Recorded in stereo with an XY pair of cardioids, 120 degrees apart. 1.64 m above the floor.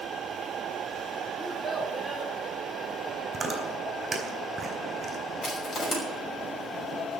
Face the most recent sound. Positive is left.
turn(degrees=40)